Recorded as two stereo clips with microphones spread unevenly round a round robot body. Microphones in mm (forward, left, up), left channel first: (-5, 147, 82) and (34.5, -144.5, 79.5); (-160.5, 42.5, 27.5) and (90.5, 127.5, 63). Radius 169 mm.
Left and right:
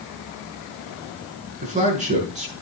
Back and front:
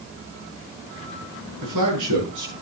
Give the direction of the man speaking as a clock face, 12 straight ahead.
1 o'clock.